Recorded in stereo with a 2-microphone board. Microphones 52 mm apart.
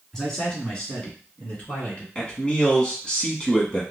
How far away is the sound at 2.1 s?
About 1.1 m.